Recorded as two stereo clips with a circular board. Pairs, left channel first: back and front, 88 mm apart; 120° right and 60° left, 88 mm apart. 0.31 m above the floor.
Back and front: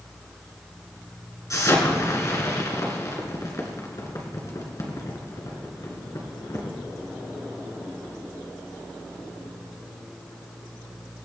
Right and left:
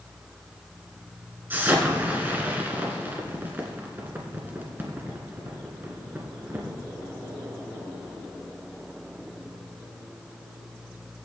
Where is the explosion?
130° left, 2 m.